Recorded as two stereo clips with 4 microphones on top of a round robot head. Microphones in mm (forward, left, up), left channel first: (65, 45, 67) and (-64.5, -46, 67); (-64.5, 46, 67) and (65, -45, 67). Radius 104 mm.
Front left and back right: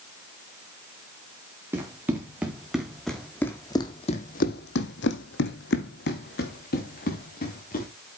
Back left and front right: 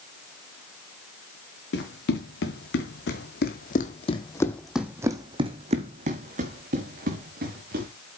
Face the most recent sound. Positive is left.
turn(degrees=-5)